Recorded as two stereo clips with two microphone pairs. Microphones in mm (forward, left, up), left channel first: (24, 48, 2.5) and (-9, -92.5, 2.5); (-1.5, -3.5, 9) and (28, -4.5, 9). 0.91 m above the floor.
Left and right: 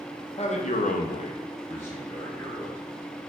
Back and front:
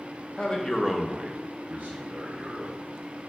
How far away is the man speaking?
About 0.9 m.